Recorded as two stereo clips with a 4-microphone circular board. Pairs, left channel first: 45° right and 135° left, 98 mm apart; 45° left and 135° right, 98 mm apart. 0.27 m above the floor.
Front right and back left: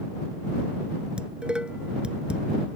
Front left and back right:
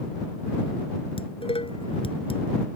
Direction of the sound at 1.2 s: 55° left.